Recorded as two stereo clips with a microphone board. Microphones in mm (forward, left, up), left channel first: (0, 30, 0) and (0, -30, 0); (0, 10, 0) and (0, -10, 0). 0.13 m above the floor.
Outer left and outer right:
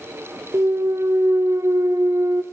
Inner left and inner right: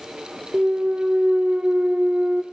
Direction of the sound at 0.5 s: 60° right (ahead or behind).